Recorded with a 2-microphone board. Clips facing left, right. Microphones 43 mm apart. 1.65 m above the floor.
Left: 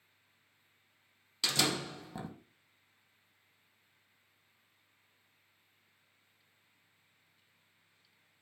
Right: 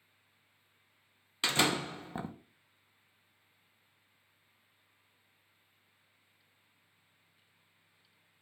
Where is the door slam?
35° right (ahead or behind), 0.8 m.